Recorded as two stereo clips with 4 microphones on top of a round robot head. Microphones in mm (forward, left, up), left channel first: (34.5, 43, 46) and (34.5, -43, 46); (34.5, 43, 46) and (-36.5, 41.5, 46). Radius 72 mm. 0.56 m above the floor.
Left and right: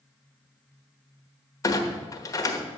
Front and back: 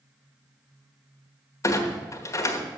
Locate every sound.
1.6 s a clunk: 40° left, 1.4 m